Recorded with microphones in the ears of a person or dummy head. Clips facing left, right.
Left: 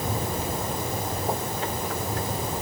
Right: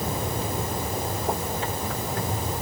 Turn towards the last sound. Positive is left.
No sound to turn to.